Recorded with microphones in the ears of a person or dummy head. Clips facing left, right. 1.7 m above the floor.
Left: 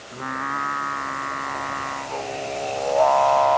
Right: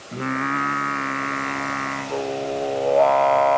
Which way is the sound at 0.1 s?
30° right (ahead or behind).